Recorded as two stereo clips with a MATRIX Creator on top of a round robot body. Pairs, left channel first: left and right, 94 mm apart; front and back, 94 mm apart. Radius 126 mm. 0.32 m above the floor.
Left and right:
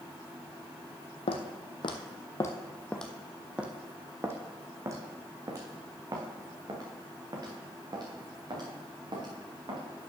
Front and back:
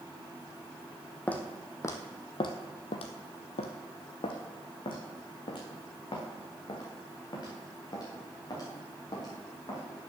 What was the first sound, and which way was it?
Footsteps, 75° left.